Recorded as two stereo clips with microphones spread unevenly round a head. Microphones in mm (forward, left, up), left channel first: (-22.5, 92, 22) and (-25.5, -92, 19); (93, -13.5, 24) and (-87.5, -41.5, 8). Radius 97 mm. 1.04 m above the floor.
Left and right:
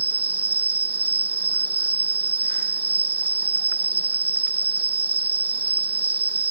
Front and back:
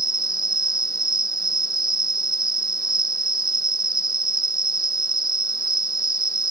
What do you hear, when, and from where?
0.0 s an insect: 125° right